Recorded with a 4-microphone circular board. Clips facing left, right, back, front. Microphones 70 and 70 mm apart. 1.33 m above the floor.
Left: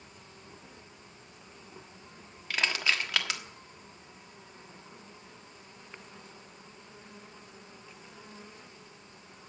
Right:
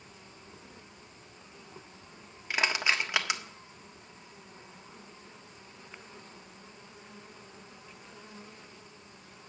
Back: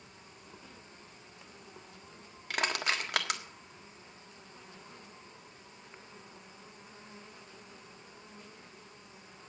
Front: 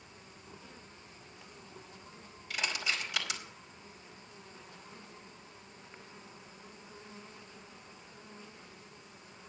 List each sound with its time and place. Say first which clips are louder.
2.5 s crushing: right 1 dB, back 4 dB; 160° right, 1.4 m